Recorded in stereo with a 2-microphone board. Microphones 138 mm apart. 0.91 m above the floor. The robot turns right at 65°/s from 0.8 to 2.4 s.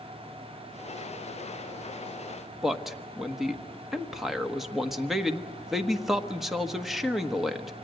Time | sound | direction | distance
2.6 | a man speaking | centre (ahead or behind) | 1.3 m